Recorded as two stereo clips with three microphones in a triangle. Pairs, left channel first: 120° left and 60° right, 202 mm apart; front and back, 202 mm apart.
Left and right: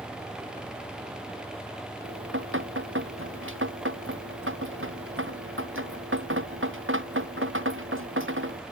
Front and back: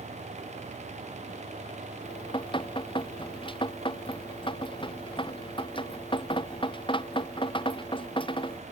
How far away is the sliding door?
No sliding door in this recording.